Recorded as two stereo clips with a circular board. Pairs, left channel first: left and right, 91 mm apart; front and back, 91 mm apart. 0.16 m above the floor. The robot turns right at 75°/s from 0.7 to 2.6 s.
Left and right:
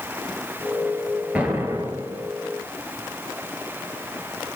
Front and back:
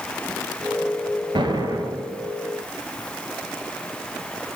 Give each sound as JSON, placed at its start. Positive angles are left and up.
{"t": 1.4, "sound": "an explosion", "azimuth_deg": -160, "distance_m": 1.6}